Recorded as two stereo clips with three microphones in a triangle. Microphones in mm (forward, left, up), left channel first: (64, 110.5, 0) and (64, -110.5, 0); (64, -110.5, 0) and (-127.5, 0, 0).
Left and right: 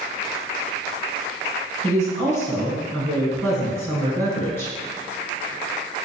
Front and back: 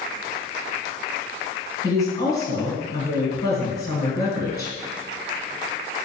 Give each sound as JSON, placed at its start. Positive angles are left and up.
{"t": 1.8, "sound": "a woman speaking", "azimuth_deg": 25, "distance_m": 1.7}